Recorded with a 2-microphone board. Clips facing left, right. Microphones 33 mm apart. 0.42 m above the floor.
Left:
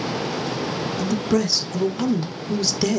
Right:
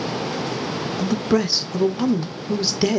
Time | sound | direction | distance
1.0 | a man speaking | 20° right (ahead or behind) | 0.8 m